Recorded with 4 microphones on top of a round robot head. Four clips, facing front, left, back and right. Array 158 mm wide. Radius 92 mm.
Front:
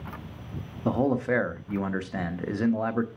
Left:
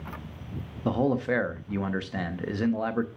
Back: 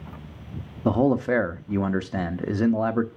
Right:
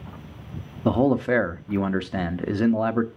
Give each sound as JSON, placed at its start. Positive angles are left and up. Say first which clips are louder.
{"t": 0.8, "sound": "a man speaking", "louder": "right 5 dB, back 4 dB", "azimuth_deg": -125, "distance_m": 0.7}